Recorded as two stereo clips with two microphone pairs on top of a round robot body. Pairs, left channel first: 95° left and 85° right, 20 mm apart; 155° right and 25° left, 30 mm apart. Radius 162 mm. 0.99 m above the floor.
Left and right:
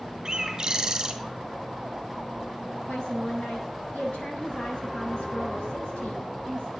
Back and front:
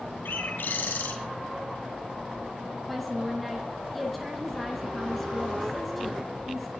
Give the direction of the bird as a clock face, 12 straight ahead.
5 o'clock.